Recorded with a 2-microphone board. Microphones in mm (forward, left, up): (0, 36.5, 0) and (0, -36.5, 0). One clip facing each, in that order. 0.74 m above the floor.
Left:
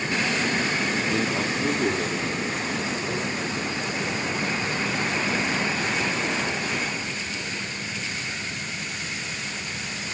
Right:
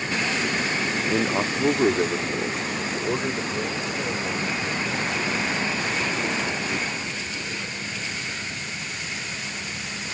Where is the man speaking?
15° right (ahead or behind), 0.9 m; by 7.8 s 70° right (ahead or behind), 7 m.